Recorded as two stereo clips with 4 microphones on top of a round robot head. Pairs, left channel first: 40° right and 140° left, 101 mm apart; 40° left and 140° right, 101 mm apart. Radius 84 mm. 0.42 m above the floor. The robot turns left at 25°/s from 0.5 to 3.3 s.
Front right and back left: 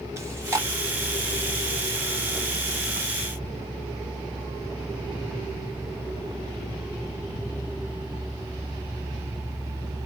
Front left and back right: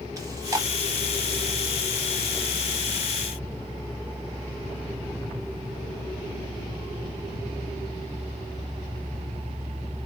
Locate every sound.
0.2 s chewing: 170° right, 1.7 m; by 0.7 s 175° right, 1.7 m